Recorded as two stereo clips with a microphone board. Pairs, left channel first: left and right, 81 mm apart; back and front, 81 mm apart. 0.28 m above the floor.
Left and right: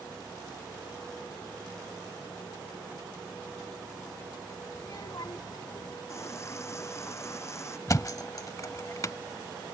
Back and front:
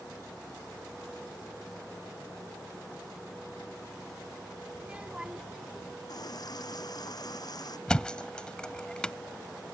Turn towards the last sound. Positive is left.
turn(degrees=105)